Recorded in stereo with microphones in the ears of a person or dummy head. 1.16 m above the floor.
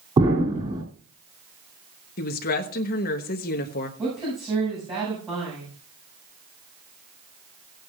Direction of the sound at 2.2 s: 50° left (ahead or behind).